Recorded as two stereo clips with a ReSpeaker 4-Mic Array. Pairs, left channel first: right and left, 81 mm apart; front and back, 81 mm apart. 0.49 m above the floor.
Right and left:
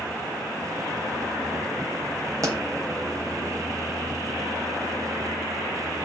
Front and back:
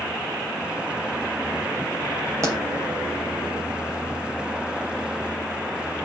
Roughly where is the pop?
Behind left.